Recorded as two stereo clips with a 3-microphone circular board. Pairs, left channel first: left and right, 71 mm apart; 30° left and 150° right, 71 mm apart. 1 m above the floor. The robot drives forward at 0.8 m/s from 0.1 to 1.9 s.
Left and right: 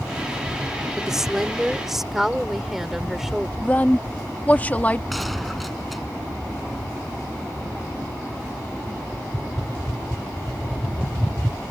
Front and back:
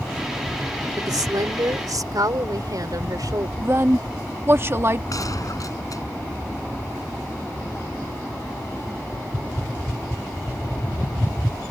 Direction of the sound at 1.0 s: 170° right.